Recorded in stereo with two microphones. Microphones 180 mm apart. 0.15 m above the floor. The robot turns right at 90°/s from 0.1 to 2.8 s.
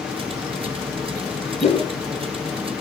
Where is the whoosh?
40° left (ahead or behind), 2.5 m; by 1.9 s 15° left (ahead or behind), 2.5 m.